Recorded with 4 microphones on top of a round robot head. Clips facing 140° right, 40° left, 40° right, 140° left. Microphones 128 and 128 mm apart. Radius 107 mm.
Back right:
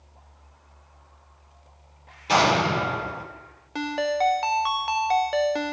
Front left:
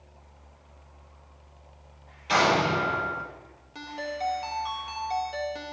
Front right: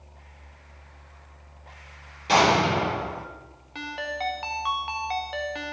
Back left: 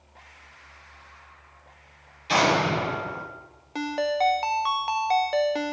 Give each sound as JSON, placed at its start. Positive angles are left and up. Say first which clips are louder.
{"t": 2.3, "sound": "an explosion", "louder": "back right 2 dB, front right 2 dB", "azimuth_deg": -80, "distance_m": 4.5}
{"t": 3.8, "sound": "a ringtone", "louder": "back right 9 dB, back left 8 dB", "azimuth_deg": -170, "distance_m": 0.6}